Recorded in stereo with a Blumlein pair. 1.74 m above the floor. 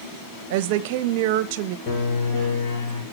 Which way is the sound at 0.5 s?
50° right.